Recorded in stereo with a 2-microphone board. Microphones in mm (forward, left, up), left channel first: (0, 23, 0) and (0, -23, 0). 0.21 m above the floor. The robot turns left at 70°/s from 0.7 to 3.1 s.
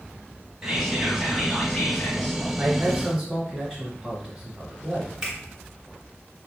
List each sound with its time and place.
0.6 s whispering: 160° right, 1.2 m; by 2.4 s 80° left, 1.2 m
2.6 s a man speaking: 20° right (ahead or behind), 1.1 m; by 5.1 s 5° right (ahead or behind), 1.1 m
5.2 s a finger snap: 15° right (ahead or behind), 2.5 m